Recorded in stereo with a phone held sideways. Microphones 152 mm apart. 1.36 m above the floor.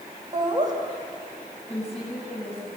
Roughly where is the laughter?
Right.